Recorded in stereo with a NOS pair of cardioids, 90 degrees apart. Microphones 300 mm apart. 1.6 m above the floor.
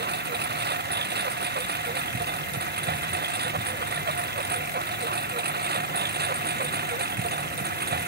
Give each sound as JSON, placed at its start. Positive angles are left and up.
{"t": 0.0, "sound": "a lawn mower", "azimuth_deg": -35}